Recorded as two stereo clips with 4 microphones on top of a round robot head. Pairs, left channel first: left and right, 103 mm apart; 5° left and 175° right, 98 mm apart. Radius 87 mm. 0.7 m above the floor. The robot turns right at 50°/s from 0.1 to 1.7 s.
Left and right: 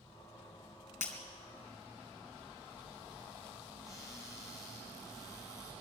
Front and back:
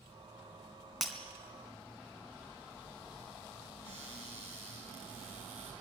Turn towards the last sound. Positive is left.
turn(degrees=-175)